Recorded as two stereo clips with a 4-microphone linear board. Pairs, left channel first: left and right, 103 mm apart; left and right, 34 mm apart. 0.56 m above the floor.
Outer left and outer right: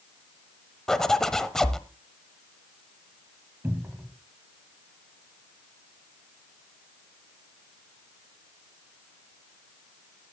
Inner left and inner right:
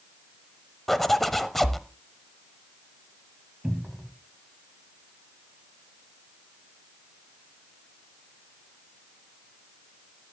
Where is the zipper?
5° left (ahead or behind), 0.8 m.